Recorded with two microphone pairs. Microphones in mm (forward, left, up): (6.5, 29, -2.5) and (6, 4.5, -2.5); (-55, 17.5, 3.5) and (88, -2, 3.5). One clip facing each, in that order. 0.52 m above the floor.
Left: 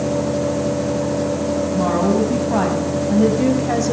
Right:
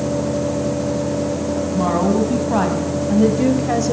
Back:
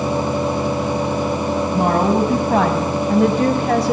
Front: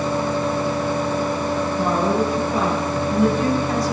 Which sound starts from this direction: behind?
A woman speaking, at 1.7 s.